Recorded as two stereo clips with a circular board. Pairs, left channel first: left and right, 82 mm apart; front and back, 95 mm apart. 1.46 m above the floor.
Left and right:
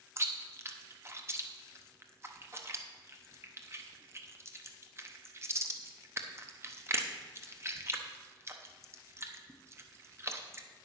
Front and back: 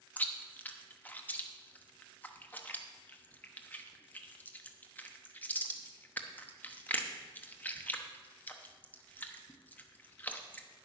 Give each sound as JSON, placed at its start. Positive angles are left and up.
{"t": 0.2, "sound": "chewing", "azimuth_deg": -60, "distance_m": 0.9}